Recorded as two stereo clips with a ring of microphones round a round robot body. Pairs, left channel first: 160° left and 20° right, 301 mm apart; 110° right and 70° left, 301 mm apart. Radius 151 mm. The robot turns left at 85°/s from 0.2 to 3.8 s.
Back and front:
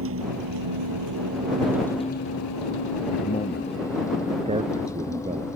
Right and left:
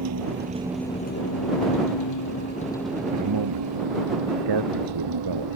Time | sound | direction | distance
0.0 | a vehicle | 25° left | ?
3.1 | a man speaking | 105° left | ?